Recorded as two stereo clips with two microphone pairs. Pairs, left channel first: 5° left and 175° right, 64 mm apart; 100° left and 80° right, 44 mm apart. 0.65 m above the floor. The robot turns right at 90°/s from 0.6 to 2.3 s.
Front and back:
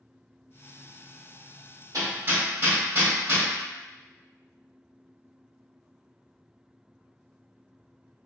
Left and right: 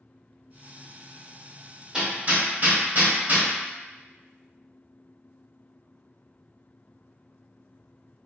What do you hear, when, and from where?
1.9 s hammering: 160° right, 1.4 m; by 3.5 s 125° right, 1.4 m